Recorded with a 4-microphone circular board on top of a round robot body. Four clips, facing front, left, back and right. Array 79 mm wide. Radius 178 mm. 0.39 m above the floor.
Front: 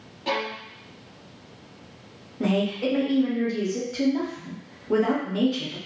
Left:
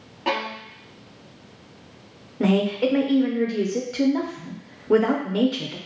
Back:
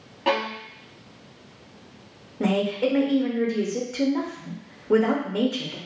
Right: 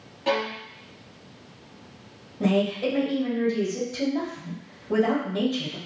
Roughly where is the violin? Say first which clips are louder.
Even, back 4 dB; behind left.